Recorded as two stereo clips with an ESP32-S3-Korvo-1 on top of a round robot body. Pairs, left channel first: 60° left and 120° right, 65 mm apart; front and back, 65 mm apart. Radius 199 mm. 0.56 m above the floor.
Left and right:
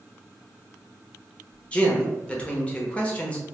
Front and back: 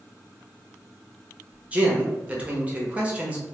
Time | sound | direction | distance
1.7 | a man speaking | 120° left | 1.3 m